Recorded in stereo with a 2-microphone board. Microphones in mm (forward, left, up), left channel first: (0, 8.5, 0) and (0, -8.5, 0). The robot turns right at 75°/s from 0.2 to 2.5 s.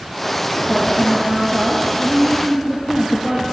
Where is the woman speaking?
170° right, 5.5 m; by 3.4 s 35° right, 5.5 m.